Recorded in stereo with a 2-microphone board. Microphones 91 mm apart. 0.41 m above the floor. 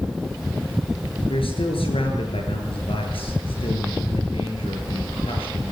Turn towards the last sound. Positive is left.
turn(degrees=80)